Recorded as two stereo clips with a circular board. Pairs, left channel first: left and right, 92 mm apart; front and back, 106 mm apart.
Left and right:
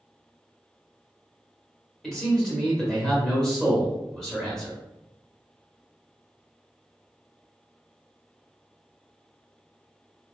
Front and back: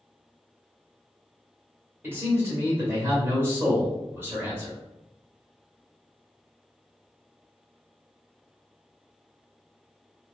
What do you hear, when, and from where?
2.0 s a man speaking: 165° left, 1.4 m